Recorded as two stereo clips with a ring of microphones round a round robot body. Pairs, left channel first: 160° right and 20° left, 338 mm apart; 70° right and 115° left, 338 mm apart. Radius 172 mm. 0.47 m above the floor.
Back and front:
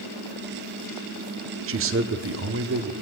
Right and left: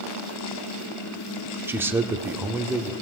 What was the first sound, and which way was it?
A man speaking, 35° left.